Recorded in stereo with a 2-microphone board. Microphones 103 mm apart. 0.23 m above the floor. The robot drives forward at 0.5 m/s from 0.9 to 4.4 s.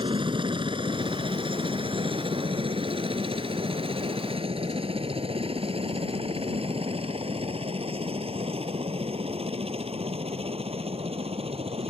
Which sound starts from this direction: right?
A helicopter, at 0.0 s.